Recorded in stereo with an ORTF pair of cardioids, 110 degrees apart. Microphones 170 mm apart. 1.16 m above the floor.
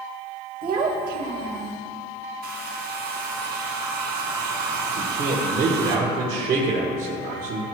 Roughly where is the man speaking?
Ahead right.